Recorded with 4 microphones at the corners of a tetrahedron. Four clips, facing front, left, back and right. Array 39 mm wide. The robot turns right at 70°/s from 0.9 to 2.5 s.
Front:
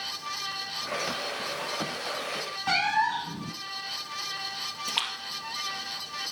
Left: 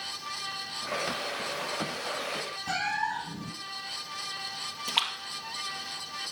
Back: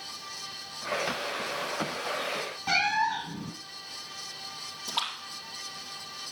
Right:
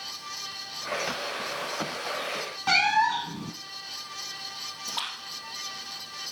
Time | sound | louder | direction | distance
2.7 | a cat meowing | right 9 dB, front 1 dB | 70° right | 1.2 m
4.9 | a splash | left 5 dB, front 1 dB | 60° left | 2.5 m